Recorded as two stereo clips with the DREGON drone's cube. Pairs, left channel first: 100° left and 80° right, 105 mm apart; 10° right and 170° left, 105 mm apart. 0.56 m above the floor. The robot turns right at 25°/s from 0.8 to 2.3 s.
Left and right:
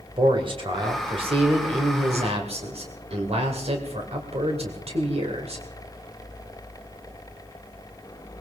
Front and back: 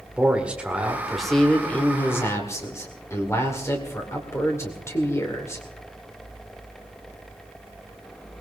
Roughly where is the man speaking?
Right.